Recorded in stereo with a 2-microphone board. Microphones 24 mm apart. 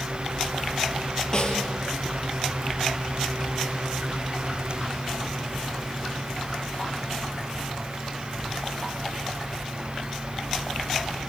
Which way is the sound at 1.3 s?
25° left (ahead or behind).